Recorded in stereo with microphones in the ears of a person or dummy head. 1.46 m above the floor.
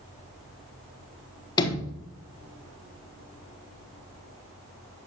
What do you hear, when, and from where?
1.6 s a sliding door: 25° left (ahead or behind), 1.3 m